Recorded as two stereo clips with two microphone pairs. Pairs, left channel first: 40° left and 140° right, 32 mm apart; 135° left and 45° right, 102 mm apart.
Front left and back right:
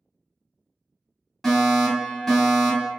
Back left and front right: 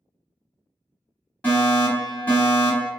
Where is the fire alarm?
110° left, 1.7 m.